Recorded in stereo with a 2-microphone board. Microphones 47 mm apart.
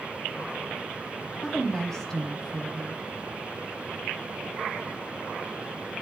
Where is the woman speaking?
10° left (ahead or behind), 1.0 m.